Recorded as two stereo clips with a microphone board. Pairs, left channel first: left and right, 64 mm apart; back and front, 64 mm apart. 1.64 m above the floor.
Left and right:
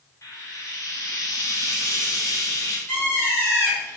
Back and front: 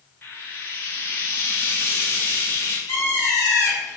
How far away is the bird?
About 1.5 m.